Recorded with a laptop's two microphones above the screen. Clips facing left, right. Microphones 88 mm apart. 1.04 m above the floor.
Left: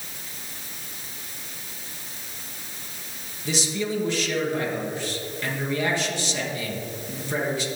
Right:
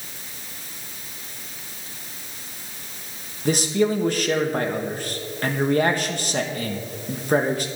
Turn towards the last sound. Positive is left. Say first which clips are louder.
# right 7 dB
turn(degrees=-50)  # may be behind; listen again after turning